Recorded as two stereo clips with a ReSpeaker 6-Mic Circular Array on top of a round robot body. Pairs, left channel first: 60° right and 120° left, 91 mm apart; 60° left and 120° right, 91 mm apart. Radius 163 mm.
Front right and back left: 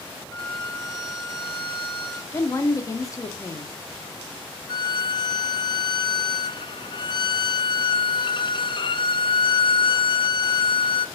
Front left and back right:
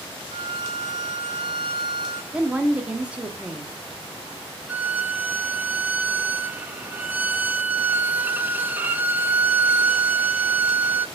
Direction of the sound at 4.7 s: 50° right.